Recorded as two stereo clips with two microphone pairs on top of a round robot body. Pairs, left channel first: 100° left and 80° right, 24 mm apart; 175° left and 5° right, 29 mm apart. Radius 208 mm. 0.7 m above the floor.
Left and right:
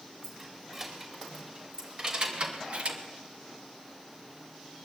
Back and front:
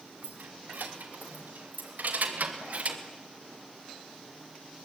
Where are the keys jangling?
10° right, 5.5 m; by 3.0 s 50° right, 2 m.